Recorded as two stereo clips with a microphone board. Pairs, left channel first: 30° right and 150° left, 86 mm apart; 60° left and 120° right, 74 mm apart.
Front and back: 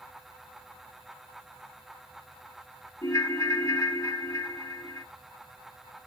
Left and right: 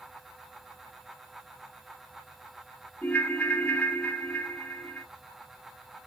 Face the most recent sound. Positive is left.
turn(degrees=-5)